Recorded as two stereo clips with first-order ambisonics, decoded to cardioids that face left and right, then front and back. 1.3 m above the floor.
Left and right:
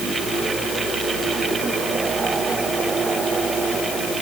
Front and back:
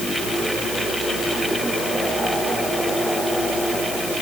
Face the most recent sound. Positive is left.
No sound to turn to.